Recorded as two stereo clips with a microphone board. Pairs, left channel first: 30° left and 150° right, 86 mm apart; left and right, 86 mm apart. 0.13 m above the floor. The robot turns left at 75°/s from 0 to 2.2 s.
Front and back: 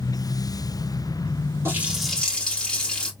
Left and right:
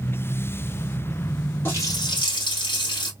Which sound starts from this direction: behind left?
A running tap, at 1.6 s.